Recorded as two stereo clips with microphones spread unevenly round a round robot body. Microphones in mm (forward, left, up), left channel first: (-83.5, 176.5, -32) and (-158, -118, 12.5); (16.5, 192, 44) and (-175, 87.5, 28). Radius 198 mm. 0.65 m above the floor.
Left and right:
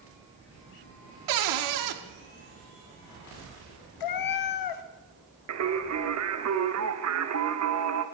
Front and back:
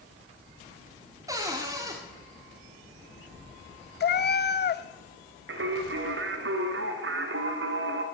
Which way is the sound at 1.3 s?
80° right.